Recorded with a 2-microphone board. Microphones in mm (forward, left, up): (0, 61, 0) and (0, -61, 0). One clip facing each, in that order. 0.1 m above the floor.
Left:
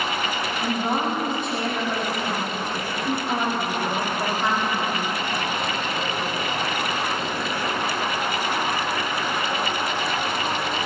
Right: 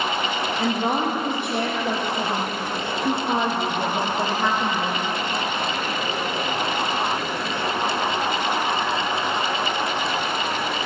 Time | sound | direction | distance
0.6 | a woman speaking | 70° right (ahead or behind) | 3.5 m